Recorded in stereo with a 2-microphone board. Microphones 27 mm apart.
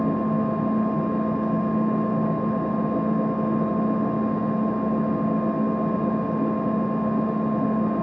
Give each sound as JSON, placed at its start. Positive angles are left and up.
{"t": 0.0, "sound": "an engine running", "side_deg": -20, "distance_m": 2.5}